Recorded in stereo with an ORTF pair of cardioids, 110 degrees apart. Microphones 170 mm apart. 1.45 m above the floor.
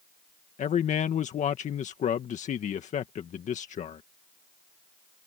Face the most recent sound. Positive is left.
turn(degrees=45)